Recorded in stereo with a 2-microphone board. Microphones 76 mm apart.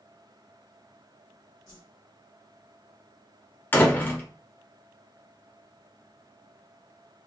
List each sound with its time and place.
1.7 s a whoosh: 55° left (ahead or behind), 1.9 m
3.7 s a door slam: 25° left (ahead or behind), 0.7 m